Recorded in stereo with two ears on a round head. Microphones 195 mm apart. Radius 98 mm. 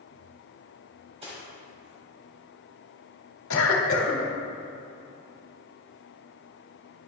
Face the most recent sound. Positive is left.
turn(degrees=75)  # may be behind; listen again after turning